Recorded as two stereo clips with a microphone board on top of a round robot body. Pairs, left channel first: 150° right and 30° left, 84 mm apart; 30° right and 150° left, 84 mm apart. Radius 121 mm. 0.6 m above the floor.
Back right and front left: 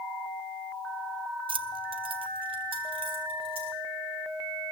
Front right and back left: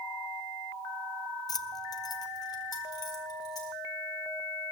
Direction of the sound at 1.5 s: 15° left.